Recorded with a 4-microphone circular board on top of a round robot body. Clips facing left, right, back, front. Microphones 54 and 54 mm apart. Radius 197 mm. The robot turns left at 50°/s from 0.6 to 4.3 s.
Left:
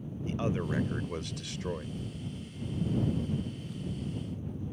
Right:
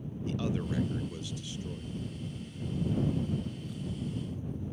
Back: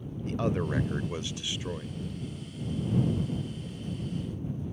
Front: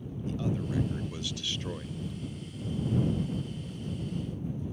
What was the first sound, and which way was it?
A man speaking, 150° left.